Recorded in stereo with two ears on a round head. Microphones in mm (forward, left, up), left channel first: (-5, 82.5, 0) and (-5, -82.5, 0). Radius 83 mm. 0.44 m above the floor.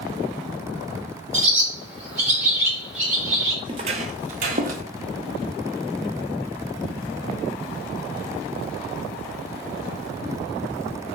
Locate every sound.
1.3 s a bird: 35° right (ahead or behind), 1.5 m
3.6 s footsteps: 25° right (ahead or behind), 0.5 m; by 4.8 s 45° right (ahead or behind), 0.8 m